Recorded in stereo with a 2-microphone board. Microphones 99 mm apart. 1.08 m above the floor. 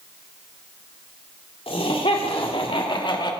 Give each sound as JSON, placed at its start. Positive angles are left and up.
{"t": 1.7, "sound": "laughter", "side_deg": 85, "distance_m": 2.5}